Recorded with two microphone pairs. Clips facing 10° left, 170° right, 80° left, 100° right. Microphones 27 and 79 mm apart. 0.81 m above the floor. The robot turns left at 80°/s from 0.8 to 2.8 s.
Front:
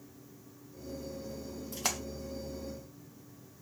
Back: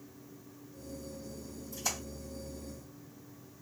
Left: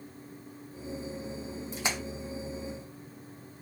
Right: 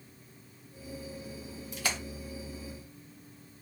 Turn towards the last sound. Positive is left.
turn(degrees=-65)